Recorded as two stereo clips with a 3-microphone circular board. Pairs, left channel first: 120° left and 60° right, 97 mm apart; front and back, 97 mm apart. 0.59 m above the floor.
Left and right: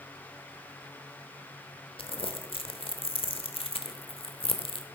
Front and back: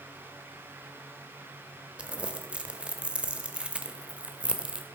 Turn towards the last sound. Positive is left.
turn(degrees=100)